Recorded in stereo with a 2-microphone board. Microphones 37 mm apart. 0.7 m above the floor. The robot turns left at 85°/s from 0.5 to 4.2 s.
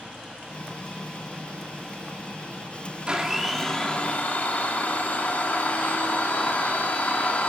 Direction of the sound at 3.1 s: 145° right.